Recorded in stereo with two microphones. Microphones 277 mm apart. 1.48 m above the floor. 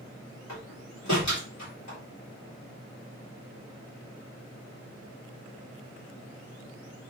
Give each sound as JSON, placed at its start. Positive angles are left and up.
{"t": 0.5, "sound": "a door slam", "side_deg": 85, "distance_m": 4.0}